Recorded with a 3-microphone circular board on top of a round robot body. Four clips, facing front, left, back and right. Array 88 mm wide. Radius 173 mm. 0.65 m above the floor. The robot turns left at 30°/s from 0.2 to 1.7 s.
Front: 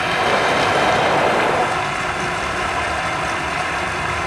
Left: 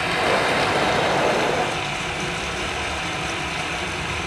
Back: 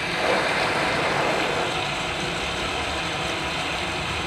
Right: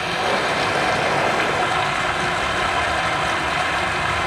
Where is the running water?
Straight ahead, 2.5 m; by 4.3 s 45° right, 2.5 m.